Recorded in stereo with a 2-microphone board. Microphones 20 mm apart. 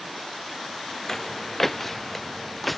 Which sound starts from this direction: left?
Footsteps, at 1.1 s.